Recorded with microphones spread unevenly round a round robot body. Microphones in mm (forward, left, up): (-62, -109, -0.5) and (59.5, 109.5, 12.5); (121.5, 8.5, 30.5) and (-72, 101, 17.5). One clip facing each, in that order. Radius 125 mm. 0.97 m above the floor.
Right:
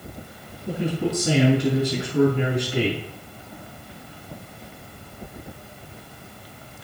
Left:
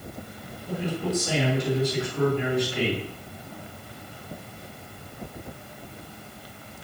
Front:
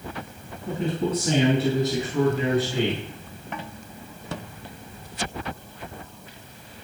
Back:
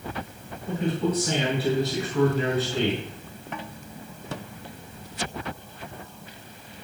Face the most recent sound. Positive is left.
turn(degrees=-105)